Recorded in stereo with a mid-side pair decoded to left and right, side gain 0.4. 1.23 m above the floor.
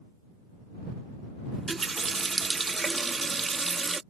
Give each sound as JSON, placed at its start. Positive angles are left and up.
{"t": 1.5, "sound": "a running tap", "azimuth_deg": -35}